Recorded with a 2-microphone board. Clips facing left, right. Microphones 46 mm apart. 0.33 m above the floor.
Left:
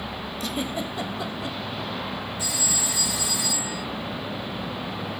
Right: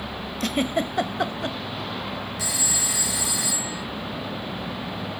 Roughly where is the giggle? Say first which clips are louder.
Right 6 dB; right.